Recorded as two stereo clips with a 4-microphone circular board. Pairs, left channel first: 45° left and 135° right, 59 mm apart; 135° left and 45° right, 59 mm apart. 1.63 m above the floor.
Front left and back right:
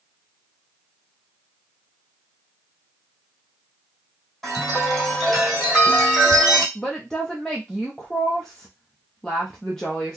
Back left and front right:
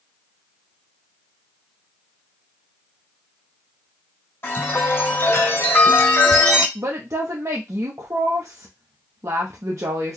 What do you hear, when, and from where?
4.4 s a chime: 140° left, 1.8 m
6.8 s a woman speaking: 35° right, 0.6 m